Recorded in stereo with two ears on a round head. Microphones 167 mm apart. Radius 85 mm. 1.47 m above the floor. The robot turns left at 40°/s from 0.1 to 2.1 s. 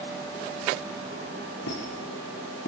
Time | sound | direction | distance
1.7 | a squeak | 70° left (ahead or behind) | 4.5 m